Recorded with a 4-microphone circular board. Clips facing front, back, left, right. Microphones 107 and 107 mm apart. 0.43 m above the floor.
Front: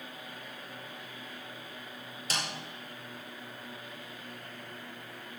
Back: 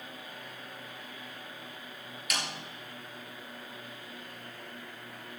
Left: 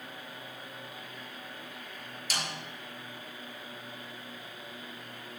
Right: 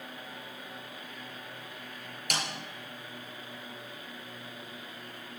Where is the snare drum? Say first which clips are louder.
Even, right 2 dB; 60° right, 3.5 m.